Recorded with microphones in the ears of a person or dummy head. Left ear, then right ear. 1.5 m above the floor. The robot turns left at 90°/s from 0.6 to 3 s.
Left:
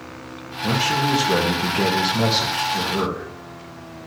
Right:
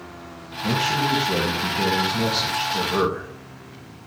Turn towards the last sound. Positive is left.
turn(degrees=-35)